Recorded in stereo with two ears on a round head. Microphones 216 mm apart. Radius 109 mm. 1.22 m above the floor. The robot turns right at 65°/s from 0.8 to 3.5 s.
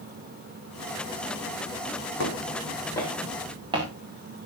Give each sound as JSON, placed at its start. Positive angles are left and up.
{"t": 2.2, "sound": "footsteps", "side_deg": 55, "distance_m": 4.0}